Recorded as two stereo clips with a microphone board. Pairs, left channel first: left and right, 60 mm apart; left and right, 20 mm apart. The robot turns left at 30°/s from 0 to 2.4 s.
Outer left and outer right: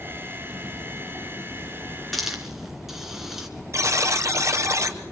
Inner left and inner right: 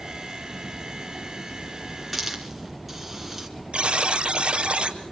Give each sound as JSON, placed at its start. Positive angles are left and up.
{"t": 2.1, "sound": "a hiss", "side_deg": 0, "distance_m": 3.0}
{"t": 3.7, "sound": "a buzzer", "side_deg": -55, "distance_m": 1.6}